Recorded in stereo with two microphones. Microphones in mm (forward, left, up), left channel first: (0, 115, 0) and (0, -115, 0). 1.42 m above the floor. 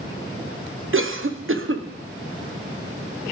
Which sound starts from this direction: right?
A cough, at 0.9 s.